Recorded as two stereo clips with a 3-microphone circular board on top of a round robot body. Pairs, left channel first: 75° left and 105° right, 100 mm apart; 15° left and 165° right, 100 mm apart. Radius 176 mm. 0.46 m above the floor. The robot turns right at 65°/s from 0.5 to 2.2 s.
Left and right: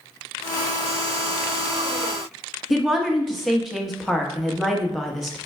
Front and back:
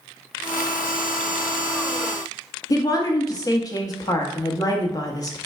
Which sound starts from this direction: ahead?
A woman speaking, at 2.7 s.